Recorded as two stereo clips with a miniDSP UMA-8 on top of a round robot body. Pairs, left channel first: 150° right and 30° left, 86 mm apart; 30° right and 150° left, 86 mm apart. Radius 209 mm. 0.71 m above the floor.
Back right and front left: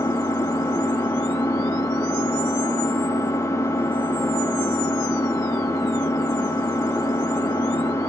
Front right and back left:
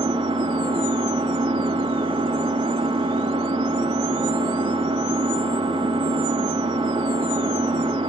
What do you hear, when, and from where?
0.0 s an engine running: 155° left, 1.2 m